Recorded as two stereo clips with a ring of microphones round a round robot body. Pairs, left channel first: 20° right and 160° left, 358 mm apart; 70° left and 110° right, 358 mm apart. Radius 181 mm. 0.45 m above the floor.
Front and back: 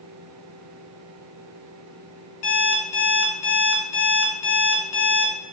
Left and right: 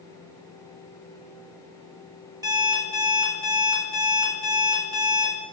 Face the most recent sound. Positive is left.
turn(degrees=-30)